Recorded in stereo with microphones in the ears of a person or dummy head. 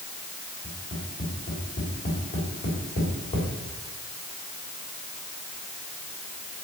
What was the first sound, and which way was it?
Tapping, 40° left (ahead or behind).